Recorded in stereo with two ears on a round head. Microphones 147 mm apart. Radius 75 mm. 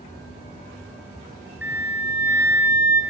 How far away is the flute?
About 1.6 m.